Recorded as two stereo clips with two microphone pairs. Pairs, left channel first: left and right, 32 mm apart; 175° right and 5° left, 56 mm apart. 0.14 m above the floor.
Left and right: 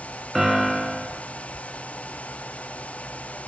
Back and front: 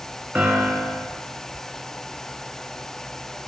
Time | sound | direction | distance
0.3 | a piano | 5° right | 0.9 m